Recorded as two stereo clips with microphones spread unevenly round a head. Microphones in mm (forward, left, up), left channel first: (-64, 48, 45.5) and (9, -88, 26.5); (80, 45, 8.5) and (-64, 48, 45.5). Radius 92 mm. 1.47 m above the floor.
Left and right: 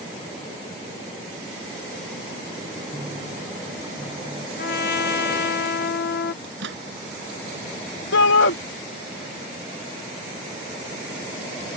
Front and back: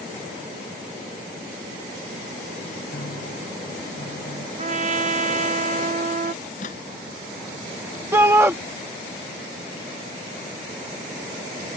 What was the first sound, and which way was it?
A piano, 5° left.